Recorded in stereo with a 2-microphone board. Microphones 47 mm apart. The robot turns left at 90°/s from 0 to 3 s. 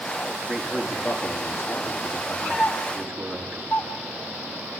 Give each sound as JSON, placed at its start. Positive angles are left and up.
{"t": 0.5, "sound": "a man speaking", "azimuth_deg": -155, "distance_m": 3.5}
{"t": 2.6, "sound": "a doorbell", "side_deg": 75, "distance_m": 5.0}